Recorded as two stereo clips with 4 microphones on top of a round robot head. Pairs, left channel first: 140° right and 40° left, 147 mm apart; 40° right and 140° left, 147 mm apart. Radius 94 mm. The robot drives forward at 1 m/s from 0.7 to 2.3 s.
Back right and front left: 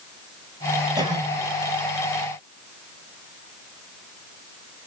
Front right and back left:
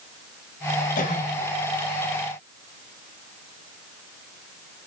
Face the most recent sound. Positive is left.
turn(degrees=-25)